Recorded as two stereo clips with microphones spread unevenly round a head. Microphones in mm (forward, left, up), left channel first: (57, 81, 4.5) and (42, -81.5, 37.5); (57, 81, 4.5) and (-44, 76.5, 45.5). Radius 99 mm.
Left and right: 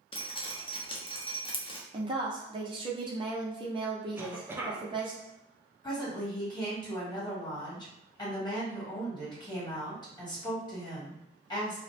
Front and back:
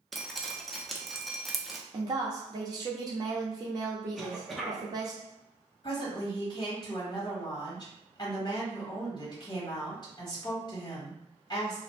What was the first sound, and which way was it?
Dripping, 70° left.